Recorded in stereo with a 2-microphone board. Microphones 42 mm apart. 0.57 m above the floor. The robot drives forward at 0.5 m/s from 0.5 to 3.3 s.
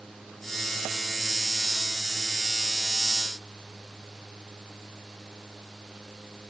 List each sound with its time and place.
Only background noise.